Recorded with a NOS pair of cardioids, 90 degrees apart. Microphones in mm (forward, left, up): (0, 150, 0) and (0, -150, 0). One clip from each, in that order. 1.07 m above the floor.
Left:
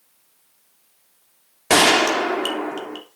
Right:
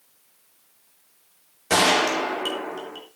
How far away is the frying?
No frying in this recording.